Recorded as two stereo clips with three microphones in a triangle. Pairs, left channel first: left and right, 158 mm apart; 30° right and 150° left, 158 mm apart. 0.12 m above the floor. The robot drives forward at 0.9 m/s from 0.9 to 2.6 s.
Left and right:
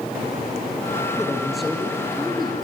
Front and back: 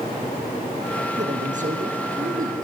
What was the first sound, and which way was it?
A man speaking, straight behind.